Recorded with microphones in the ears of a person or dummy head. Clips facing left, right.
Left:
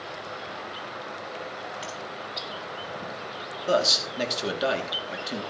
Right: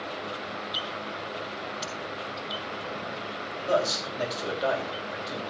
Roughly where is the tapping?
Right.